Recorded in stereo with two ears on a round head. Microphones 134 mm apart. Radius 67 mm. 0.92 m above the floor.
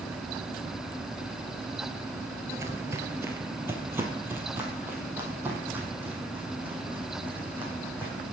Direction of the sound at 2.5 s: 20° right (ahead or behind).